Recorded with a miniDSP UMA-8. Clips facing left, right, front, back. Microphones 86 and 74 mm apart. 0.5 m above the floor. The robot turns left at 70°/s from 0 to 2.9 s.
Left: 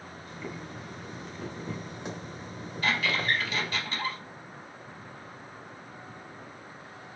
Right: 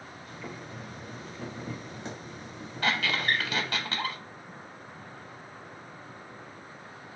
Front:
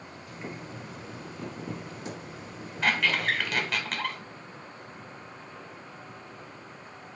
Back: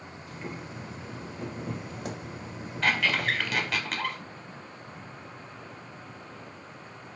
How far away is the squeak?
About 0.6 m.